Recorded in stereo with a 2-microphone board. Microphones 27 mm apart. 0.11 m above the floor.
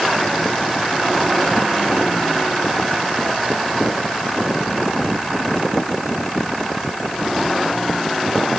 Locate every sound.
Only background noise.